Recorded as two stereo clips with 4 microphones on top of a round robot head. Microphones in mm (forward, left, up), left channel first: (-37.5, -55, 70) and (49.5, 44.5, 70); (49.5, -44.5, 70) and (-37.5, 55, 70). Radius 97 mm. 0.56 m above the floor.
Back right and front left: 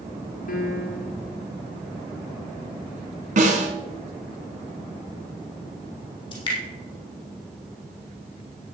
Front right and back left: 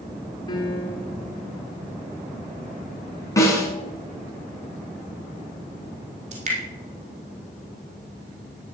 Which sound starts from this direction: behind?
Dripping, at 6.3 s.